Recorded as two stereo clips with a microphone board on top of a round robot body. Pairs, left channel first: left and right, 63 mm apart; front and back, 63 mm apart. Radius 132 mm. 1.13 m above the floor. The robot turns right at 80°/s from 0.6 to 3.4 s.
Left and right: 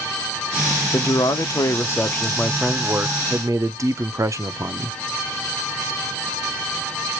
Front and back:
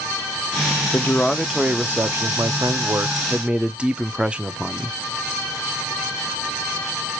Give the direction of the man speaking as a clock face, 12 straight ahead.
10 o'clock.